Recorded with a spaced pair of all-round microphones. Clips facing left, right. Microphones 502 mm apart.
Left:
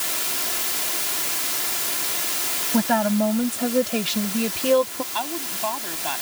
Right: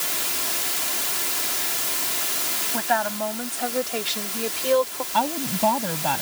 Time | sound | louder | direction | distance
2.7 | a woman speaking | left 8 dB | 55° left (ahead or behind) | ?
5.1 | a woman speaking | right 6 dB | 70° right (ahead or behind) | ?